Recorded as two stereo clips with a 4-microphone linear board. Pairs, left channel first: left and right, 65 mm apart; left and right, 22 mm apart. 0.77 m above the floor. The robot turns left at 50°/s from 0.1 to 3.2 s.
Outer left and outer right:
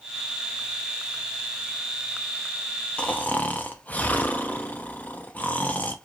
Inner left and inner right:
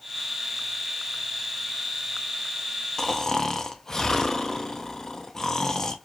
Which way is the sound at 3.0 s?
15° left (ahead or behind).